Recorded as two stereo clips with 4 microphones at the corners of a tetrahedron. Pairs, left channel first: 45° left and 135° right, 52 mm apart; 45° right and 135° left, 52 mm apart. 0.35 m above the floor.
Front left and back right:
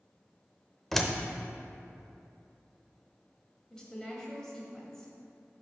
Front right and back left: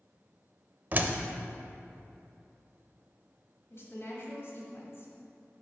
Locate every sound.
0.9 s a door slam: 125° left, 0.6 m
3.7 s a woman speaking: 30° right, 1.9 m